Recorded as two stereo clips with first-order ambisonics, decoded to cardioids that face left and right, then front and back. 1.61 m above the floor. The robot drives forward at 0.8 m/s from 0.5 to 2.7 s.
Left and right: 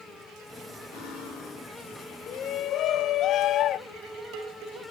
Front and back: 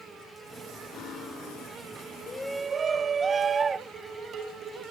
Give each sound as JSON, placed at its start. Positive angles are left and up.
{"t": 0.9, "sound": "cutlery clinking", "azimuth_deg": 60, "distance_m": 6.5}
{"t": 2.3, "sound": "a shout", "azimuth_deg": 60, "distance_m": 0.5}
{"t": 3.9, "sound": "dishes clattering", "azimuth_deg": -120, "distance_m": 4.5}